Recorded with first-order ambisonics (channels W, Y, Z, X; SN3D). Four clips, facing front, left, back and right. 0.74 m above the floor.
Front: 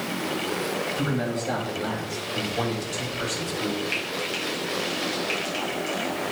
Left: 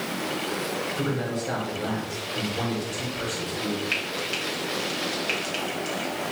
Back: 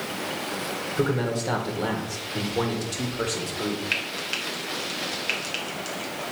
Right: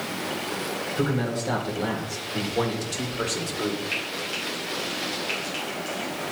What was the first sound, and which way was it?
A man speaking, 165° right.